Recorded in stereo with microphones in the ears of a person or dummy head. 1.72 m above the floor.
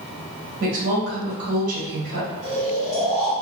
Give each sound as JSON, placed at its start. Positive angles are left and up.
{"t": 0.6, "sound": "a woman speaking", "side_deg": -70, "distance_m": 1.8}
{"t": 2.4, "sound": "snoring", "side_deg": -5, "distance_m": 1.8}